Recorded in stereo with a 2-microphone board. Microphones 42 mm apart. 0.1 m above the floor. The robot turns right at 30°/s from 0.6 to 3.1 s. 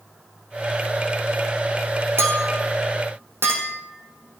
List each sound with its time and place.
2.2 s a clink: 75° right (ahead or behind), 3 m; by 4.4 s 65° right (ahead or behind), 3 m